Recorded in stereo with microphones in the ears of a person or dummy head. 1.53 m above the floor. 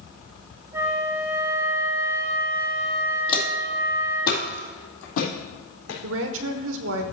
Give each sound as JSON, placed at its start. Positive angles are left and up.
{"t": 0.7, "sound": "a flute", "side_deg": -15, "distance_m": 0.6}
{"t": 3.3, "sound": "footsteps", "side_deg": 25, "distance_m": 2.5}
{"t": 6.0, "sound": "a woman speaking", "side_deg": -70, "distance_m": 1.1}